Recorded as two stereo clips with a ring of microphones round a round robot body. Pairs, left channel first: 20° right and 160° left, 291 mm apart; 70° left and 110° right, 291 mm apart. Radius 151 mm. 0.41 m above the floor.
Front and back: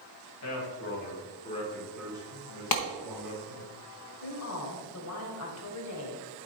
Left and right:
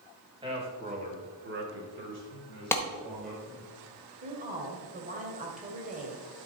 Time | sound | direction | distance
0.4 | a man speaking | 40° right | 2.5 m
2.7 | a clap | 15° right | 1.1 m
4.2 | a woman speaking | 50° right | 1.9 m